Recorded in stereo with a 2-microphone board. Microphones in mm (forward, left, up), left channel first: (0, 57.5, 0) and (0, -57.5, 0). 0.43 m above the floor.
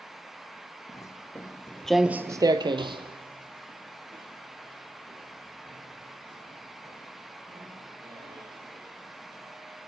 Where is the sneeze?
No sneeze in this recording.